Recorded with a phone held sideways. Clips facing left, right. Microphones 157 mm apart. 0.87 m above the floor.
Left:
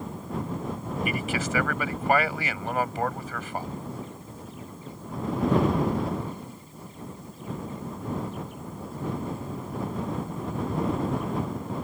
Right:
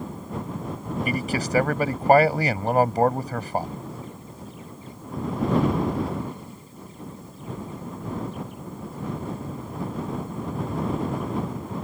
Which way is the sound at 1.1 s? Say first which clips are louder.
Right 3 dB; 40° right (ahead or behind).